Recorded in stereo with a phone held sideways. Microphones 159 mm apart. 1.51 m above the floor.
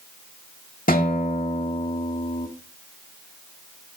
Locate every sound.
0.9 s a guitar: 65° left (ahead or behind), 1.8 m